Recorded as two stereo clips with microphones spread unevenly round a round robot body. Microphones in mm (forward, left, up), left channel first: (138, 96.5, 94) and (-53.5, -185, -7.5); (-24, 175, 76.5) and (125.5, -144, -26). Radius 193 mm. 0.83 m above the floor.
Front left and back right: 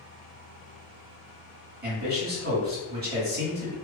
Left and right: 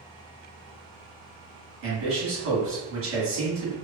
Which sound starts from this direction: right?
A man speaking, at 1.8 s.